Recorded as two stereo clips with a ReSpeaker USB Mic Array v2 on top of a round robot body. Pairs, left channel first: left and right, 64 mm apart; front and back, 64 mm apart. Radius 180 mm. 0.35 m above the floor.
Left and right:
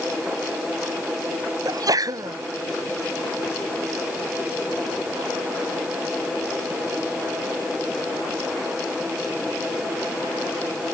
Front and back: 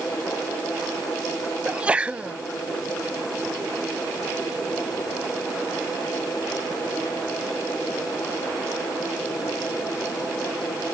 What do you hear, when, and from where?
1.6 s a sneeze: 110° right